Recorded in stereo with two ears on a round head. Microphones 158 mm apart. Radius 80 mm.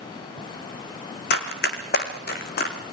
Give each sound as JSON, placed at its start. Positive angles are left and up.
{"t": 1.3, "sound": "running footsteps", "side_deg": 55, "distance_m": 3.0}